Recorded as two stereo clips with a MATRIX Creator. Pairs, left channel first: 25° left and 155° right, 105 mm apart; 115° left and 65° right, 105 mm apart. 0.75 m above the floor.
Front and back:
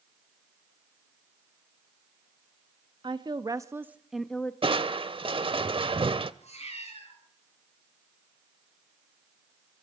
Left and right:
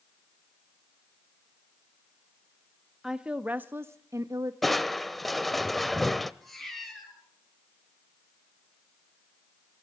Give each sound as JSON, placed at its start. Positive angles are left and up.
{"t": 3.0, "sound": "a woman speaking", "azimuth_deg": -150, "distance_m": 1.2}
{"t": 4.6, "sound": "crushing", "azimuth_deg": -160, "distance_m": 0.7}
{"t": 6.4, "sound": "a cat meowing", "azimuth_deg": 25, "distance_m": 7.5}